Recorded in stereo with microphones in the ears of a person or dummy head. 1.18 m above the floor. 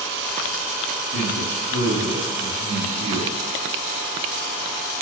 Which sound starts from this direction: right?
A man speaking, at 1.1 s.